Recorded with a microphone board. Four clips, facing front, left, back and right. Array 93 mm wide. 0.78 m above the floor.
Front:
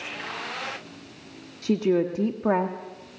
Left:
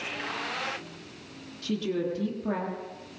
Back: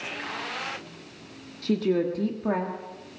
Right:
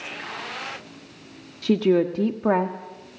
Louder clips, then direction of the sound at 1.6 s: Right 10 dB, front 2 dB; 80° right.